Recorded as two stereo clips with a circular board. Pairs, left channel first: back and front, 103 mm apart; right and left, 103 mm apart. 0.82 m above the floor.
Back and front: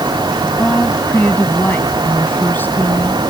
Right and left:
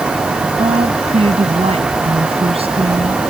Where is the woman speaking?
105° left; by 3.3 s 110° left.